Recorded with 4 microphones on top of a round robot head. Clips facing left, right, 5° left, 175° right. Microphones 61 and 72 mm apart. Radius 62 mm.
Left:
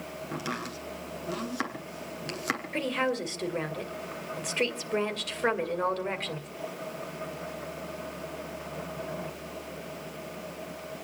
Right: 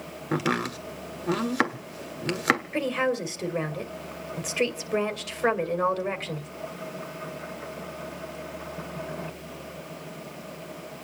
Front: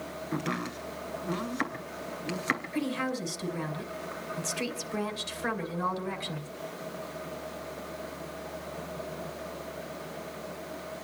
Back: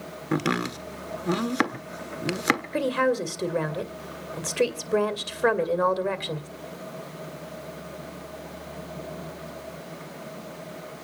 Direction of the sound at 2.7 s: 175° right.